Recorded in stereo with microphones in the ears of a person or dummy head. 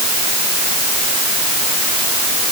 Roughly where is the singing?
No singing in this recording.